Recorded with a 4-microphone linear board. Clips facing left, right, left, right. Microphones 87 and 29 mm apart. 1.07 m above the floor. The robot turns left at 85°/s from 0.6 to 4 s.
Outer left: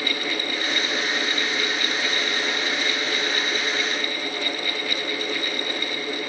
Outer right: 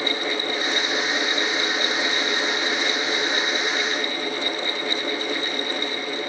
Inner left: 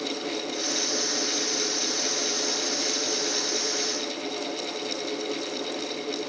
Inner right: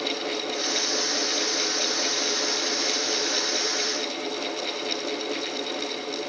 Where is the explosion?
I don't hear an explosion.